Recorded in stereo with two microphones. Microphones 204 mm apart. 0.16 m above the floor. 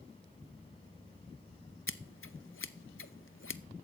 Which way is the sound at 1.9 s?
80° left.